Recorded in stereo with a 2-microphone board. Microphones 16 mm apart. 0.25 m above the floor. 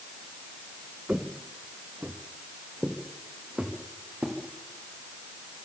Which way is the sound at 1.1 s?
65° right (ahead or behind).